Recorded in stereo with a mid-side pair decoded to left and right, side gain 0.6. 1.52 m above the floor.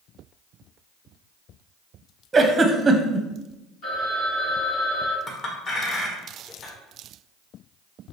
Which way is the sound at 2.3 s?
25° right.